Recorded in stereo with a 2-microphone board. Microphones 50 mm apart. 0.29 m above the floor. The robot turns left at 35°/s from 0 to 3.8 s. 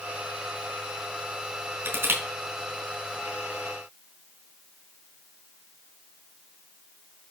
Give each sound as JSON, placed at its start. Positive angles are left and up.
{"t": 1.9, "sound": "crushing", "side_deg": -55, "distance_m": 3.5}